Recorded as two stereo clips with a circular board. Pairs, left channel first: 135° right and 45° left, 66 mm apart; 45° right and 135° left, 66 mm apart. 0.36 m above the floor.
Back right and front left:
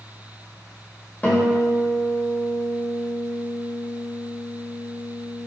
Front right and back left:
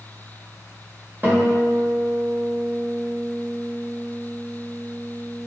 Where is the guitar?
175° left, 0.9 m.